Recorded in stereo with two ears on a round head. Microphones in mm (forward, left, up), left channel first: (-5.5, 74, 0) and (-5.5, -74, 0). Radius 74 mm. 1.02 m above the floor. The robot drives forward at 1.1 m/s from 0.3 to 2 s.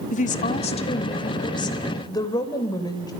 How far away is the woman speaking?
About 2 m.